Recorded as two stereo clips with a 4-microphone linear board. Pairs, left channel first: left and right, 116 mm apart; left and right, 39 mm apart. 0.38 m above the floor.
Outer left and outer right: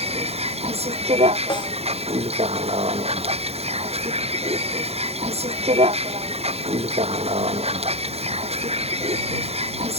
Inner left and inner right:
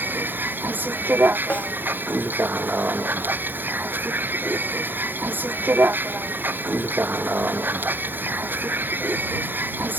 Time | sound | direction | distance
0.0 | a vehicle | 65° right (ahead or behind) | ?
1.5 | a snare drum | 40° left (ahead or behind) | ?